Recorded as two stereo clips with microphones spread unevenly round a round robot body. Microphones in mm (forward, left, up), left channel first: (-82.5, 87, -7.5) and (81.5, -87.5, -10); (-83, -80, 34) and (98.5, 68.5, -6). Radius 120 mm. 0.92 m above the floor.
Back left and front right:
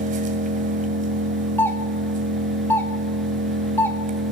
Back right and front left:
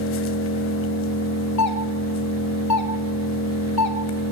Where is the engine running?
105° right, 2.5 m.